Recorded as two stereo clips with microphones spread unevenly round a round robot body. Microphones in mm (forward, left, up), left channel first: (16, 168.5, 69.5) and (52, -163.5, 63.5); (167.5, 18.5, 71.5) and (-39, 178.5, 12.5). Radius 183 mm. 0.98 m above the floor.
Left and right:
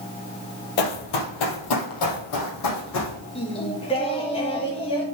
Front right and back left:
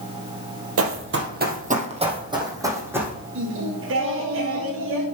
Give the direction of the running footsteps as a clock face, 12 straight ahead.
8 o'clock.